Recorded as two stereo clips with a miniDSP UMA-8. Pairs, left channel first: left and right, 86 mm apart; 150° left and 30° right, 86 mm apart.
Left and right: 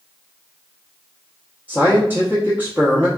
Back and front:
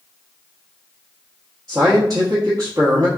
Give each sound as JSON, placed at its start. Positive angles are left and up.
{"t": 1.7, "sound": "a man speaking", "azimuth_deg": -30, "distance_m": 0.9}